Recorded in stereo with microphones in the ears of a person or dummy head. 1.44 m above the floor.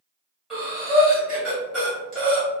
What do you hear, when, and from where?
0.5 s breathing: 10° right (ahead or behind), 1.4 m